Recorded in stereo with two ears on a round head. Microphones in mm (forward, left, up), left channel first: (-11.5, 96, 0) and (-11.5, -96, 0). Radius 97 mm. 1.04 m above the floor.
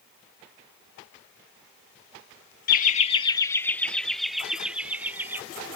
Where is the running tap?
I don't hear a running tap.